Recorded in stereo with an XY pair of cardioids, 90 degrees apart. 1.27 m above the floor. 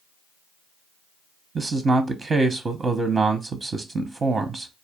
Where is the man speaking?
40° right, 0.6 m.